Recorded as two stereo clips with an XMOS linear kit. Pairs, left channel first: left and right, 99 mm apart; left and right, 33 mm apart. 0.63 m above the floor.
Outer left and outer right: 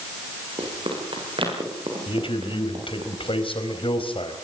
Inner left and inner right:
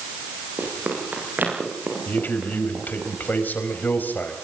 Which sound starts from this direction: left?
A man speaking, at 2.1 s.